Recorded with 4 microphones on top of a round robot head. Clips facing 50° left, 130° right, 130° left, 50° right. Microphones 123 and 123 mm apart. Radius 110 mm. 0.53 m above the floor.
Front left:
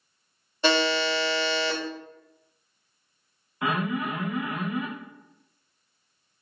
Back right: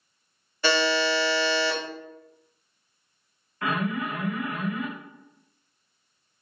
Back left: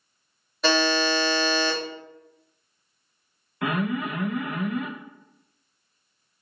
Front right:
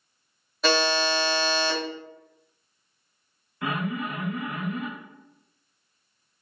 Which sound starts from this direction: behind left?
An alarm, at 3.6 s.